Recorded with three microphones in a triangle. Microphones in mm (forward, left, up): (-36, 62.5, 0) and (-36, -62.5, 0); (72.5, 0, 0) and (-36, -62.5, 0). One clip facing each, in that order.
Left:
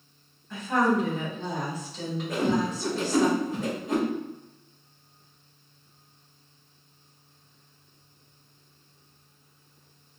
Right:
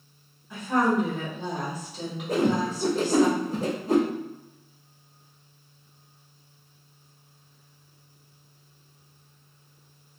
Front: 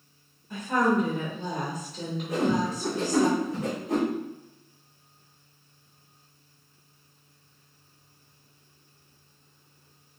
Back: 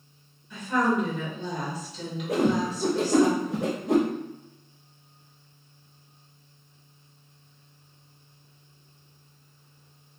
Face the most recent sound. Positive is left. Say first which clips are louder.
# right 2 dB, back 2 dB
turn(degrees=-145)